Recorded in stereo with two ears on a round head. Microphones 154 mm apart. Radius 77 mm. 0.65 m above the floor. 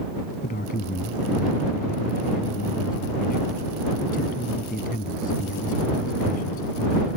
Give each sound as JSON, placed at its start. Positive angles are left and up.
{"t": 0.4, "sound": "a man speaking", "side_deg": 50}